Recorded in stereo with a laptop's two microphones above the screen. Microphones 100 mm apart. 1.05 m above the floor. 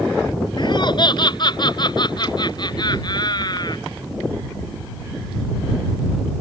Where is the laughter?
50° left (ahead or behind); by 3.8 s 45° left (ahead or behind).